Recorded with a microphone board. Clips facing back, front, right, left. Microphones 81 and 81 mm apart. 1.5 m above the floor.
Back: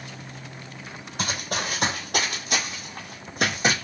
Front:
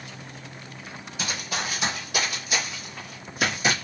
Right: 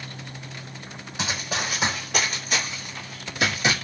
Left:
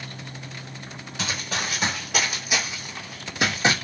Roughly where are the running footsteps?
Behind.